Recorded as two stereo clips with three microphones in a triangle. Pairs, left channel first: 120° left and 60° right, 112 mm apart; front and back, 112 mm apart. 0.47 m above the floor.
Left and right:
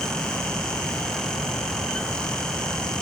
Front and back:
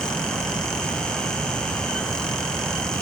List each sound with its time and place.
Only background noise.